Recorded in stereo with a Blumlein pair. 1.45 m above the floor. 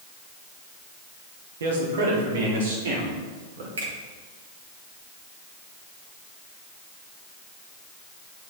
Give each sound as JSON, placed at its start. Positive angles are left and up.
{"t": 1.6, "sound": "a man speaking", "azimuth_deg": -65, "distance_m": 2.5}
{"t": 3.8, "sound": "a finger snap", "azimuth_deg": -70, "distance_m": 3.0}